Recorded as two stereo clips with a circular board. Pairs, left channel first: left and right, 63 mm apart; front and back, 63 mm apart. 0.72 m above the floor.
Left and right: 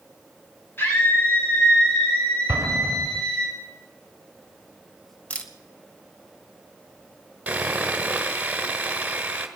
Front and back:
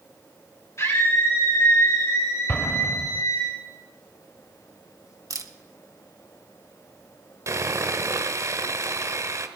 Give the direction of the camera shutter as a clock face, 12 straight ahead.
7 o'clock.